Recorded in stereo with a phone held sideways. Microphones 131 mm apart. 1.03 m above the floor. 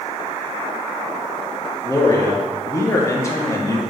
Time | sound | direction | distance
1.8 | a man speaking | 25° left (ahead or behind) | 0.7 m